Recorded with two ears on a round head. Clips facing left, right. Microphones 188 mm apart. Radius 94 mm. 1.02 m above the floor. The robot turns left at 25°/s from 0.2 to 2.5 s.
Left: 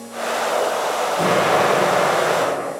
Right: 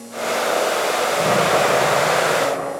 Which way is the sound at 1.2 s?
100° left.